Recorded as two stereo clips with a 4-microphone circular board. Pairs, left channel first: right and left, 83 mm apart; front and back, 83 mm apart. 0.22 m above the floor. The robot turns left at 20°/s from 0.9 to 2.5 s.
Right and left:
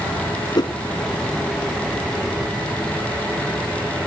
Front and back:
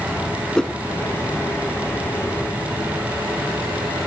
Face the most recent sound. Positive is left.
turn(degrees=-110)